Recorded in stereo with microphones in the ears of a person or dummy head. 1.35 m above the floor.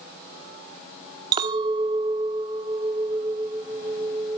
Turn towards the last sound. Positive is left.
turn(degrees=-25)  # may be behind; listen again after turning